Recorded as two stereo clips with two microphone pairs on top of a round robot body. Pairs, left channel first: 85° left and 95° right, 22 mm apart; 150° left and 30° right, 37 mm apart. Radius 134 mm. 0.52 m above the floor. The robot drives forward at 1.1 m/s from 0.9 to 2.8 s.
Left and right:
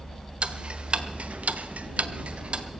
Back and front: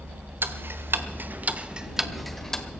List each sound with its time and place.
0.4 s ticking: 55° right, 1.3 m; by 2.6 s 135° right, 1.6 m